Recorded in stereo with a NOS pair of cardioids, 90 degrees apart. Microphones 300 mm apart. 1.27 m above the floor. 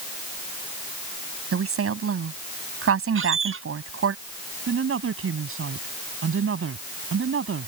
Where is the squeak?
45° right.